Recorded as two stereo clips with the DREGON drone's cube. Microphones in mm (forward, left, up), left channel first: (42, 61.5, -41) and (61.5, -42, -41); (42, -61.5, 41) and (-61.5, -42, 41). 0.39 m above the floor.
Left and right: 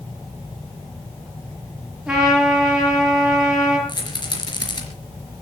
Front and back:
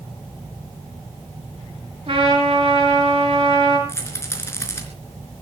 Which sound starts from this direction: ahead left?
A rattle, at 3.9 s.